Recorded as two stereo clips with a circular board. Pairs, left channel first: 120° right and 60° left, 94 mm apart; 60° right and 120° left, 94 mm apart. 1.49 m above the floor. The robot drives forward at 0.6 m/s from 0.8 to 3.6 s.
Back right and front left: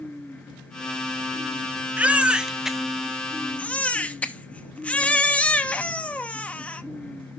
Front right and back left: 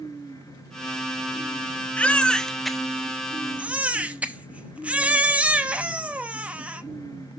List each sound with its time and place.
2.0 s a baby crying: straight ahead, 1.0 m; by 6.8 s straight behind, 1.0 m